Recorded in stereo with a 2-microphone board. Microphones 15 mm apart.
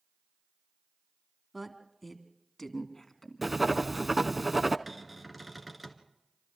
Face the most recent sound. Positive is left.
turn(degrees=-5)  # may be behind; listen again after turning